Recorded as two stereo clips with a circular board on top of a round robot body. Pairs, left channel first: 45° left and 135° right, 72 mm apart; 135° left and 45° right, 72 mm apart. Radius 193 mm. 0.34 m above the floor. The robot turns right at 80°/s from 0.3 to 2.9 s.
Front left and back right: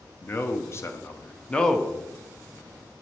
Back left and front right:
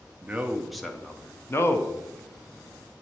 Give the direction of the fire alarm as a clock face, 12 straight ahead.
No fire alarm in this recording.